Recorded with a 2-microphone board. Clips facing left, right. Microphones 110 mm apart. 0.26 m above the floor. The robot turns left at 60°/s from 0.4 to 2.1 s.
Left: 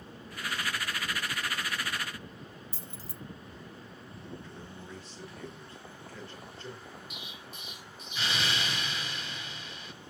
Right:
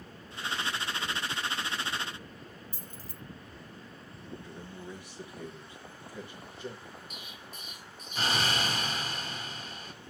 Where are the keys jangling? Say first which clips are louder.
Left 1 dB; 40° right (ahead or behind), 0.9 m.